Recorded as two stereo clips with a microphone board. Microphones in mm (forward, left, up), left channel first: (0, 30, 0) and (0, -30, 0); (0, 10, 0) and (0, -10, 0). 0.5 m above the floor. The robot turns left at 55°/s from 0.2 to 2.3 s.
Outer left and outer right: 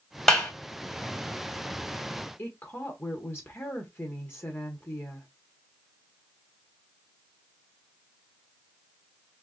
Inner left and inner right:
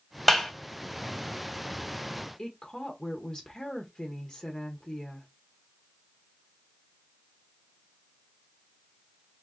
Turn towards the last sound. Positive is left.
turn(degrees=40)  # may be behind; listen again after turning